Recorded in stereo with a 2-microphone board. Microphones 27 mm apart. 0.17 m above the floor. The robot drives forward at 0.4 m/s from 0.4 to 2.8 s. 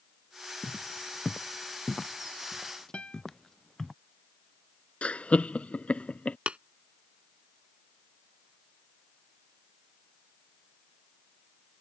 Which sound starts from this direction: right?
Tapping, at 6.5 s.